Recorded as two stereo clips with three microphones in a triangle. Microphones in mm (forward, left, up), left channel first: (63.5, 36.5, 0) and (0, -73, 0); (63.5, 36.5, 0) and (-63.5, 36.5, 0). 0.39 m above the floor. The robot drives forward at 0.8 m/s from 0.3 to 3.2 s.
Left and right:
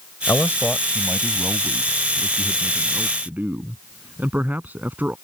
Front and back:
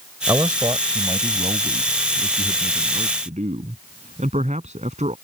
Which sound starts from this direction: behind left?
A man speaking, at 0.3 s.